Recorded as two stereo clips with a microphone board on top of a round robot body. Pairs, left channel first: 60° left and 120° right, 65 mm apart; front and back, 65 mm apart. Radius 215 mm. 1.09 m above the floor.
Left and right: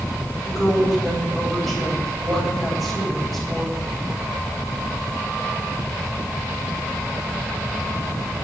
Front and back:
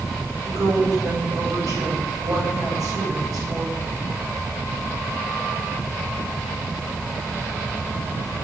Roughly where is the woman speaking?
Behind left.